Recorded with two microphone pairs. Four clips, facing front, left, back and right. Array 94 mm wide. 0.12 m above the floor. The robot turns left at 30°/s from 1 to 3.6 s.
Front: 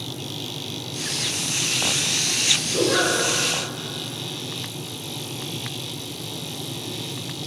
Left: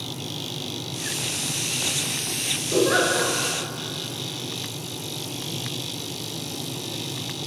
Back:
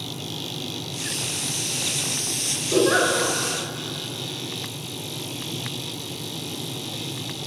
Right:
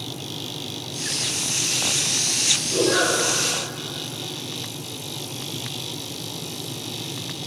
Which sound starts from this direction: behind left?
A giggle, at 2.7 s.